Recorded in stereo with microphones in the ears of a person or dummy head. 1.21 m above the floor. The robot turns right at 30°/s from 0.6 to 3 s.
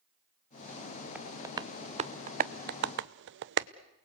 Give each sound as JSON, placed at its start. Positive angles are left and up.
{"t": 1.1, "sound": "tapping", "side_deg": -10, "distance_m": 0.6}